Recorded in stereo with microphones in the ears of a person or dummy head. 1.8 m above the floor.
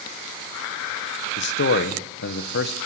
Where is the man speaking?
60° left (ahead or behind), 1.8 m.